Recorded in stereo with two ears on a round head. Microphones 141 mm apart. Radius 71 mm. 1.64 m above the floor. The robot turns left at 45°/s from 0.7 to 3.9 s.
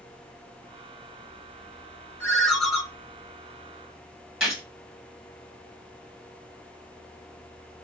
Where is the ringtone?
15° left (ahead or behind), 1.1 m; by 2.8 s 10° right (ahead or behind), 1.1 m.